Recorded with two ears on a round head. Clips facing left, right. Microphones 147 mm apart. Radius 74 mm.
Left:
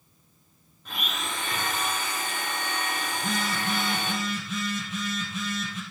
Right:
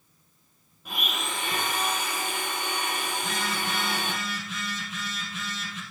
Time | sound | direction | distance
0.8 | a blender | 10° right (ahead or behind) | 2.5 m
3.1 | a phone buzzing | 85° left | 2.5 m